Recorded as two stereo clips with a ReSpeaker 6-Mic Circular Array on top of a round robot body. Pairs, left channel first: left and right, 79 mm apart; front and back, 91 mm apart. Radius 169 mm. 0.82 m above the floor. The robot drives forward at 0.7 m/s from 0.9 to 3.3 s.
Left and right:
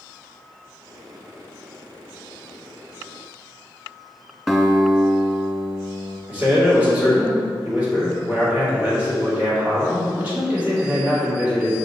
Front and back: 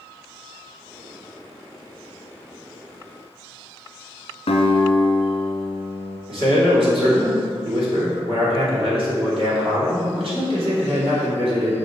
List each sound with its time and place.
4.5 s a guitar: 5° right, 0.9 m
6.3 s a man speaking: 165° right, 2.5 m